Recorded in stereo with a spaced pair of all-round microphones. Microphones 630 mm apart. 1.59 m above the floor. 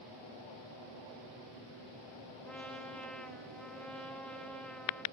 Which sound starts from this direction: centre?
A trumpet, at 2.5 s.